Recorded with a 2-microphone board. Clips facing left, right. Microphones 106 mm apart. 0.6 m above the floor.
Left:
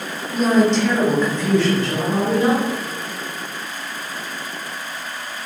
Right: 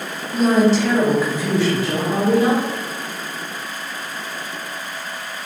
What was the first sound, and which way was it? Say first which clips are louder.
A woman speaking: right 1 dB; centre (ahead or behind).